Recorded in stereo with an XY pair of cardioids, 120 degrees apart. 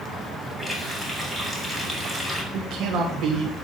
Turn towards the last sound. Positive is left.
turn(degrees=-60)